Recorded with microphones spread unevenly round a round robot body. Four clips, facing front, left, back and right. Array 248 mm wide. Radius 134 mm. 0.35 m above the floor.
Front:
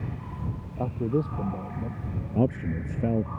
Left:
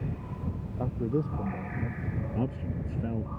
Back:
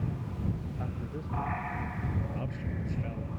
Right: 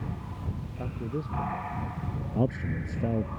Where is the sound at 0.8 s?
25° left.